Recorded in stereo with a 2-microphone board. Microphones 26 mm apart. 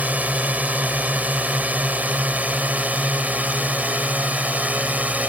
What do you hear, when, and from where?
0.0 s a drone: 65° right (ahead or behind)